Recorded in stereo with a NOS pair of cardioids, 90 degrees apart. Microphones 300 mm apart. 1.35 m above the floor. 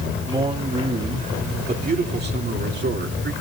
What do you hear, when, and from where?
0.3 s a man speaking: 20° right, 3.5 m; by 3.3 s 45° right, 3.5 m